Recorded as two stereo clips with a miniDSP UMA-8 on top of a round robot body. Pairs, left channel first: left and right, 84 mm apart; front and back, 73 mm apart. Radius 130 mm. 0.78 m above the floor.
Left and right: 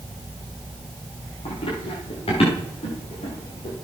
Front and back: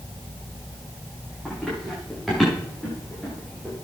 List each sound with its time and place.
1.4 s running footsteps: 90° left, 8.5 m